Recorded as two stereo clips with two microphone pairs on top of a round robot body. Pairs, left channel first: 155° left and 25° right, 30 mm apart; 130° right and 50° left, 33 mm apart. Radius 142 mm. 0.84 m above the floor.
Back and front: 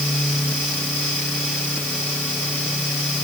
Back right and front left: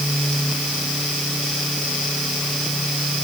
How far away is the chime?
I don't hear a chime.